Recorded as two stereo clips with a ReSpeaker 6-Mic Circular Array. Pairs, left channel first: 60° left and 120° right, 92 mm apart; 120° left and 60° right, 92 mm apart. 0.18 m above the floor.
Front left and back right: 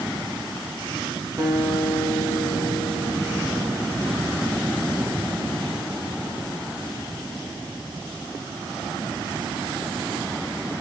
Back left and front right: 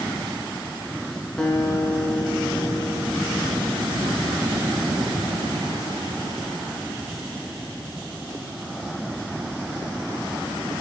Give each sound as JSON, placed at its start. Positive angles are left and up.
{"t": 1.4, "sound": "a guitar", "azimuth_deg": -160, "distance_m": 1.6}